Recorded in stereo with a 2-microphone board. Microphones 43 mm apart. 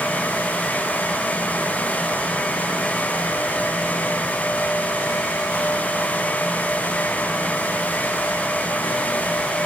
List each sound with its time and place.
Only background noise.